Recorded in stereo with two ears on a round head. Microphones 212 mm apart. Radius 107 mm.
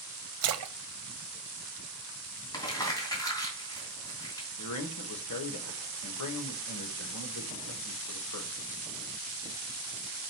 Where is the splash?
65° right (ahead or behind), 0.9 m.